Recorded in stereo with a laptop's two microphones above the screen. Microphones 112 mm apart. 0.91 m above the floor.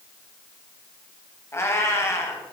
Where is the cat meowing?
25° left (ahead or behind), 1.0 m.